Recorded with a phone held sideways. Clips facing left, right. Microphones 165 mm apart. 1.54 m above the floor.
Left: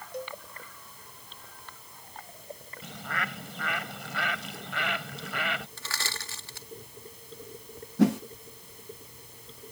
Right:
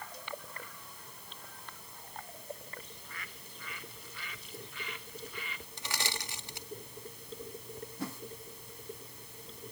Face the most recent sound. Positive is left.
turn(degrees=75)  # may be behind; listen again after turning